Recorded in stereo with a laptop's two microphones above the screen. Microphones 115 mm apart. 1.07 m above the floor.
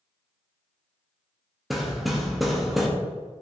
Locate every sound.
1.7 s hammering: centre (ahead or behind), 0.6 m